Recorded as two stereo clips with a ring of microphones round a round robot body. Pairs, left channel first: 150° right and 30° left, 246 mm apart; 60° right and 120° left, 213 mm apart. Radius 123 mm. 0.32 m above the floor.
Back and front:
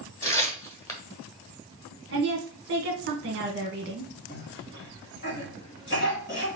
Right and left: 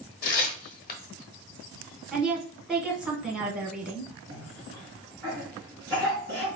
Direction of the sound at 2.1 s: 35° left.